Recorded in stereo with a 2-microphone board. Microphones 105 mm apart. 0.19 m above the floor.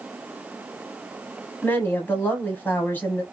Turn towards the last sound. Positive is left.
turn(degrees=20)  # may be behind; listen again after turning